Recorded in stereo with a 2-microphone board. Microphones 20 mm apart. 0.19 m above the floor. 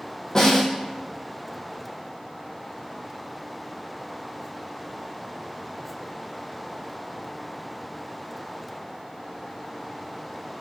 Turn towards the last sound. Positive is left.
turn(degrees=30)  # may be behind; listen again after turning